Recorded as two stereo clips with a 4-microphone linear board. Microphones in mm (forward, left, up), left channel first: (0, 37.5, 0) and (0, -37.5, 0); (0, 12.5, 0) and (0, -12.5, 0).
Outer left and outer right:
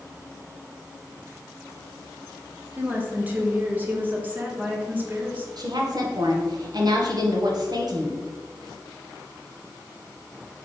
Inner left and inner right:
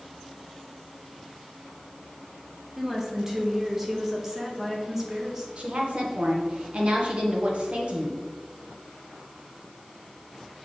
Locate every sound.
2.8 s a woman speaking: 20° right (ahead or behind), 0.9 m
5.6 s a woman speaking: 55° right (ahead or behind), 0.9 m